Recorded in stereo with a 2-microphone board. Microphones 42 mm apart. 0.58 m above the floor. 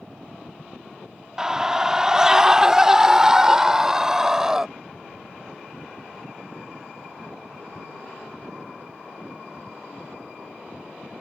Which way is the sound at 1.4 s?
15° right (ahead or behind).